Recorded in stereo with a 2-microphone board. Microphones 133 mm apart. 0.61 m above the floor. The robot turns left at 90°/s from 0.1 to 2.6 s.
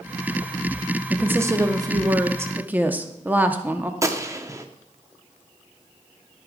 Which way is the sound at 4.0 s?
25° right (ahead or behind).